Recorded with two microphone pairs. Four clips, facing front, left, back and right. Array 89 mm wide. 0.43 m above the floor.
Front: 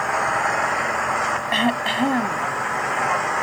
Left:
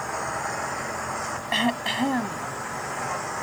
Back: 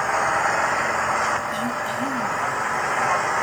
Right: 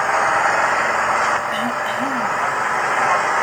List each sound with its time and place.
0.0 s an engine running: 95° right
1.5 s throat clearing: 25° left